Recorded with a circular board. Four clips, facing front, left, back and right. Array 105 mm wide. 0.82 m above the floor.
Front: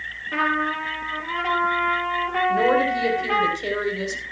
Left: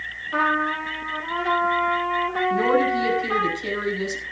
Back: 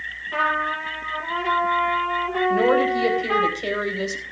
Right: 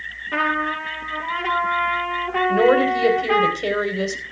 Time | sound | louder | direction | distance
0.3 | a trumpet | even, even | 65° right | 4.5 m
2.5 | a woman speaking | right 5 dB, back 1 dB | 95° right | 4 m